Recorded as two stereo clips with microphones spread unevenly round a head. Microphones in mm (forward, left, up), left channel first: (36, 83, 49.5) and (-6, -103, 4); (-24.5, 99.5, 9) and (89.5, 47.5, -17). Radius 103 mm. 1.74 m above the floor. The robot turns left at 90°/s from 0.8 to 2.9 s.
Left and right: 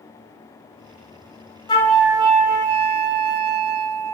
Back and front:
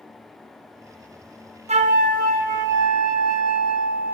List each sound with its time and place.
1.7 s a flute: 15° left, 0.5 m; by 4.1 s 90° right, 0.5 m